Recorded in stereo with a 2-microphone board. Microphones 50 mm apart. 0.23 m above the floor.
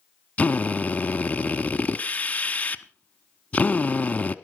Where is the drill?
30° left (ahead or behind), 0.9 m.